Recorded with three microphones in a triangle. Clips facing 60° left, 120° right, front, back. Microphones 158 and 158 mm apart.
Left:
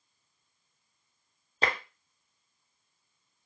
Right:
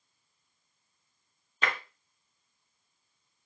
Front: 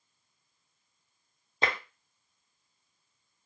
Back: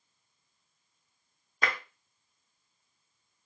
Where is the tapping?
45° left, 0.6 m.